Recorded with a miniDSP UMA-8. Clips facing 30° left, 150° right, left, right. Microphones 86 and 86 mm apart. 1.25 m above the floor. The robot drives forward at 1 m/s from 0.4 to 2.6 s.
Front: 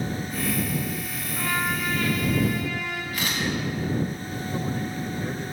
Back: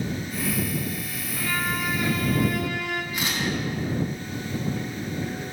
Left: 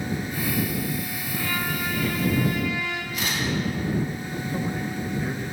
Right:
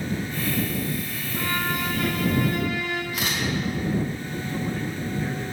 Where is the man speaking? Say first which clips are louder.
Front 1 dB, left 1 dB; 20° left, 1.4 m.